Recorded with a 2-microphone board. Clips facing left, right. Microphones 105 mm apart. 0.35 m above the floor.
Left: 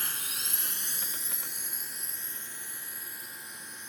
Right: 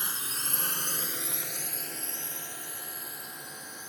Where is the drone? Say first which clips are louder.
Right 3 dB; 20° right (ahead or behind); by 3.9 s 65° right (ahead or behind).